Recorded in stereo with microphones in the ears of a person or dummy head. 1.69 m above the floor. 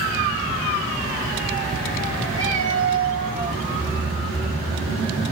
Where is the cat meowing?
15° right (ahead or behind), 1.3 m; by 3.6 s 40° right (ahead or behind), 1.4 m.